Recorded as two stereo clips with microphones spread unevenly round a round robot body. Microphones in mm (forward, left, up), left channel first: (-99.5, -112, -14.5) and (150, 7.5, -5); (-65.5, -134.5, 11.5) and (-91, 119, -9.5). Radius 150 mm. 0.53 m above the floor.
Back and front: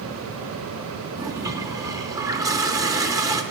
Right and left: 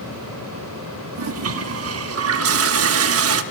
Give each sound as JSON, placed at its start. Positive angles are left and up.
{"t": 1.1, "sound": "a toilet flushing", "azimuth_deg": 105, "distance_m": 0.6}